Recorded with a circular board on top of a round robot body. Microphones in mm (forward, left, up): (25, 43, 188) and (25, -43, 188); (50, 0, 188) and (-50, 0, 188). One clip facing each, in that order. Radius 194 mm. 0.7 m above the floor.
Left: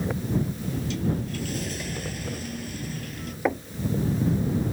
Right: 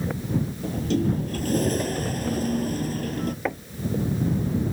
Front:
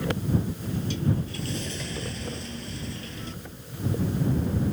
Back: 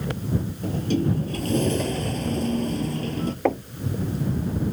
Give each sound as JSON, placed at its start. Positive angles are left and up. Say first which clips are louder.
{"t": 0.6, "sound": "a sliding door", "louder": "right 4 dB, back 5 dB", "azimuth_deg": -140}
{"t": 3.5, "sound": "knocking", "louder": "left 3 dB, back 21 dB", "azimuth_deg": 170}